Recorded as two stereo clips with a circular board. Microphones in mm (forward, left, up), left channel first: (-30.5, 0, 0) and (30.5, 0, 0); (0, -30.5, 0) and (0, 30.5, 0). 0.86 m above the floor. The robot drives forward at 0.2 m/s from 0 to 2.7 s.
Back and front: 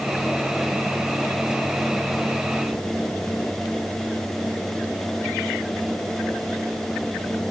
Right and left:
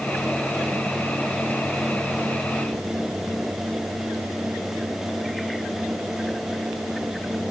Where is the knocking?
No knocking in this recording.